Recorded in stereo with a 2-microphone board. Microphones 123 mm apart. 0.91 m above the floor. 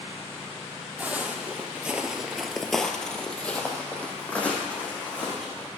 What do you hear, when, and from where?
1.0 s footsteps: 10° right (ahead or behind), 1.6 m; by 5.7 s 10° left (ahead or behind), 3.5 m